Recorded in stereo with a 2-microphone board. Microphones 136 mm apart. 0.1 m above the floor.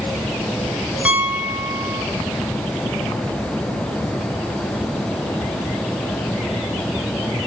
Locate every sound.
1.1 s a piano: 10° right (ahead or behind), 1.1 m